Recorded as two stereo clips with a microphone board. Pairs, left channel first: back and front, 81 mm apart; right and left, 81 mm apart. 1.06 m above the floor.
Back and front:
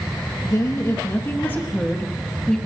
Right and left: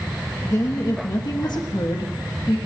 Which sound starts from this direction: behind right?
A woman speaking, at 0.4 s.